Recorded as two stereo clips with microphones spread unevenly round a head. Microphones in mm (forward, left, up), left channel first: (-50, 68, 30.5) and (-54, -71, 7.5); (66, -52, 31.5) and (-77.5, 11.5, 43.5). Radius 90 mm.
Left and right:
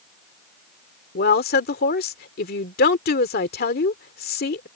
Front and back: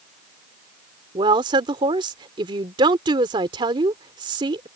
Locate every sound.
1.1 s a woman speaking: 90° left